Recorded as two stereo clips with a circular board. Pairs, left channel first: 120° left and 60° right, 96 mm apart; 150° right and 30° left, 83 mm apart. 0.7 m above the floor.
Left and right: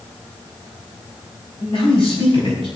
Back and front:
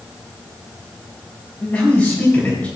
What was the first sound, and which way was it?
A man speaking, 135° left.